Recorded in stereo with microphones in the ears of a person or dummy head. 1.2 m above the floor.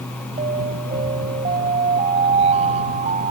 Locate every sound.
0.4 s an alarm: 35° right (ahead or behind)